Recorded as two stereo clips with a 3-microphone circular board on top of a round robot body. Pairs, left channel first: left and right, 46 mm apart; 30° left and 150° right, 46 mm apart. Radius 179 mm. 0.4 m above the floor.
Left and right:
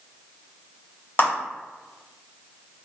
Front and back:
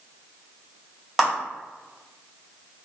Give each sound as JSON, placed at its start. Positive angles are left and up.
{"t": 1.2, "sound": "a clap", "azimuth_deg": 125, "distance_m": 1.7}